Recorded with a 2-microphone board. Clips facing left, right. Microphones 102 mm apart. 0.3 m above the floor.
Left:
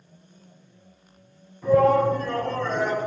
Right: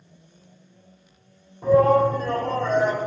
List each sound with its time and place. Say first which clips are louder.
1.6 s a shout: right 1 dB; 50° right (ahead or behind), 2.5 m